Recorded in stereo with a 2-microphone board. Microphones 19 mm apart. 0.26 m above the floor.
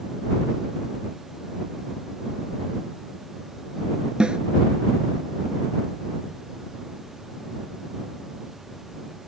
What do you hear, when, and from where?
4.2 s a snare drum: 45° right (ahead or behind)